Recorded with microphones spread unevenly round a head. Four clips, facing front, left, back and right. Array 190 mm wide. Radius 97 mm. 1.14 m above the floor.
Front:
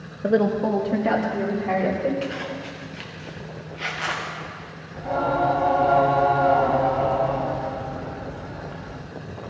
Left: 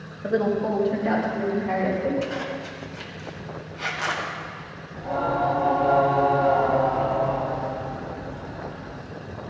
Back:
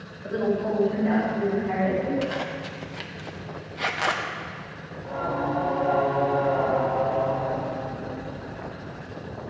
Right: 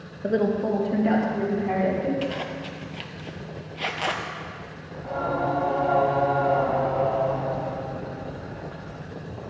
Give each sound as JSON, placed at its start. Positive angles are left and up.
{"t": 0.2, "sound": "a woman speaking", "azimuth_deg": -15, "distance_m": 1.2}
{"t": 2.2, "sound": "a zipper", "azimuth_deg": -135, "distance_m": 0.7}
{"t": 4.9, "sound": "singing", "azimuth_deg": 30, "distance_m": 1.6}